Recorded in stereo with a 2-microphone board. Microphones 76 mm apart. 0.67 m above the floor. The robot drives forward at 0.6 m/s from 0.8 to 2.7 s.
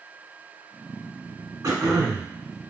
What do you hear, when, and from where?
1.6 s throat clearing: 50° right (ahead or behind), 1.0 m; by 2.3 s 60° right (ahead or behind), 0.9 m